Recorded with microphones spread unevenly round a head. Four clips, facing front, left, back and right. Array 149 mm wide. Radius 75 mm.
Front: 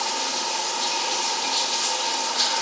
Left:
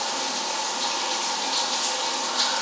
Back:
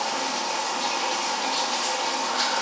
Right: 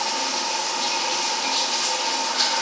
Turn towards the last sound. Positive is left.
turn(degrees=180)